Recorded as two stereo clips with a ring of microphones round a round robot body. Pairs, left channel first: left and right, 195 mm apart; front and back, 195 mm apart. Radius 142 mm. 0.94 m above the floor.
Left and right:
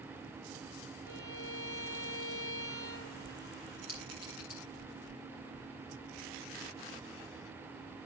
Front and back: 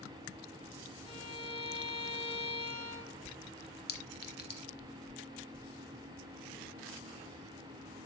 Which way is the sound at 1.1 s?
60° left.